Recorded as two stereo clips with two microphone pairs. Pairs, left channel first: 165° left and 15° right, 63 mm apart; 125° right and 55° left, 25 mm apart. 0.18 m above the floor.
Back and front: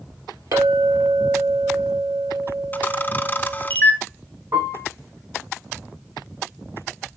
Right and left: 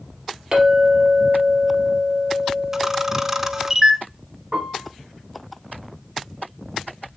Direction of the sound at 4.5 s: 5° right.